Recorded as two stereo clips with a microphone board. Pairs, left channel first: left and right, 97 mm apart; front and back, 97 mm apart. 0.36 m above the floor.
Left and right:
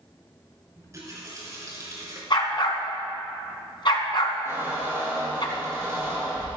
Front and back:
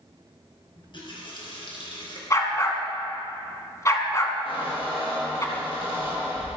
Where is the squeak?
25° right, 5 m.